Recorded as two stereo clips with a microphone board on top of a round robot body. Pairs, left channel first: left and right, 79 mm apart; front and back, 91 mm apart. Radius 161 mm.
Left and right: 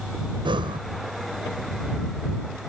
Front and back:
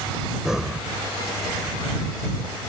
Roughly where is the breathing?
Right.